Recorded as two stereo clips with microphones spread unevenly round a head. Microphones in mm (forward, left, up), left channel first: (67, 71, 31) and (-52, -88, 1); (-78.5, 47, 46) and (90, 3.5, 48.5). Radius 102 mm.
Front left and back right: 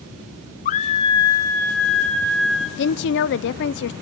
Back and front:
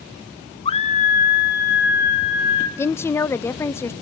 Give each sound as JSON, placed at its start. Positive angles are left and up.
{"t": 0.7, "sound": "a scream", "azimuth_deg": 105, "distance_m": 0.7}
{"t": 2.8, "sound": "a woman speaking", "azimuth_deg": 90, "distance_m": 0.7}